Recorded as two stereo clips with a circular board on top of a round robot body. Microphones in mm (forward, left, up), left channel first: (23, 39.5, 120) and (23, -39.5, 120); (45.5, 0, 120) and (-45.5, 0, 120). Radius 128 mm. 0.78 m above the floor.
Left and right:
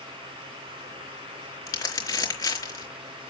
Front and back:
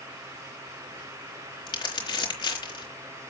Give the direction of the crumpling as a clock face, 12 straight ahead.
11 o'clock.